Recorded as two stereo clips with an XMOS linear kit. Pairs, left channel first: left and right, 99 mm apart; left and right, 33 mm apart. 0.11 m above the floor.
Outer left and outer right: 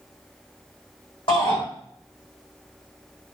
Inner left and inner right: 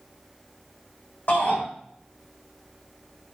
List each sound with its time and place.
1.3 s a shout: 55° left (ahead or behind), 5 m